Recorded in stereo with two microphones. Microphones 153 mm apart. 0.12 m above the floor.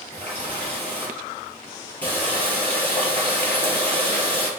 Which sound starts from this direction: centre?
A running tap, at 0.1 s.